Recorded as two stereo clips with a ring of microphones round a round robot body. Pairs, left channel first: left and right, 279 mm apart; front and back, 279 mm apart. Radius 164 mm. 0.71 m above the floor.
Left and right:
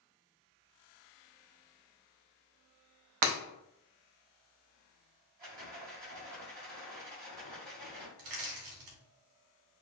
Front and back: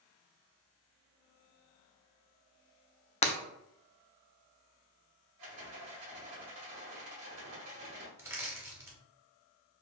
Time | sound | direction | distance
3.2 | breaking glass | 70° right | 0.6 m
5.4 | a rattle | 150° right | 1.6 m
8.2 | crushing | 100° right | 1.0 m